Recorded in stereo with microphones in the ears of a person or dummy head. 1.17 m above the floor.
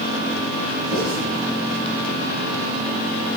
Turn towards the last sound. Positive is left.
turn(degrees=-50)  # may be behind; listen again after turning